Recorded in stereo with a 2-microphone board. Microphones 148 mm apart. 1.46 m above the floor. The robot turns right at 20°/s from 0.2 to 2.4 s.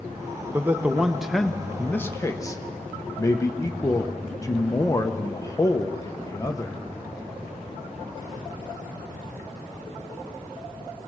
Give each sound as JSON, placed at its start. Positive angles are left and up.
{"t": 0.5, "sound": "a man speaking", "azimuth_deg": -15, "distance_m": 1.1}